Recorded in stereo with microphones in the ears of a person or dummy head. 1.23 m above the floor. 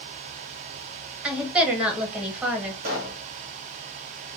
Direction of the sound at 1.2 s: 5° right (ahead or behind).